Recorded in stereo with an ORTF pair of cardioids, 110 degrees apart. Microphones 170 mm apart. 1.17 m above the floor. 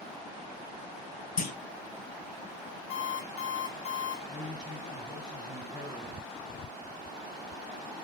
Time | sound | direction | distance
1.4 | a clunk | 55° left | 0.8 m
2.9 | an alarm clock | 45° left | 1.2 m
4.3 | a man speaking | 5° right | 0.8 m